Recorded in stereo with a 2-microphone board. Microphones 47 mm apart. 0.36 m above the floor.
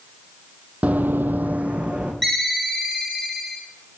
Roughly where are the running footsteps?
Right.